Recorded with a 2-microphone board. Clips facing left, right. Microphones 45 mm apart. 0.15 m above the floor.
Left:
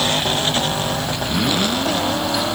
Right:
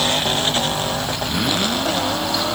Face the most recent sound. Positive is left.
No sound to turn to.